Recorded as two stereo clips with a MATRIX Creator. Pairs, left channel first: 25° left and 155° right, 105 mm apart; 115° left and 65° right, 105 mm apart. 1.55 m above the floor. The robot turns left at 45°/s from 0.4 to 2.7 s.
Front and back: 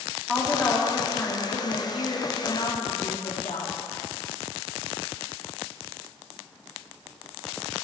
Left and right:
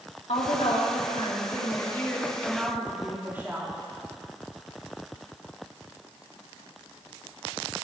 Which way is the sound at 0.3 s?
110° left.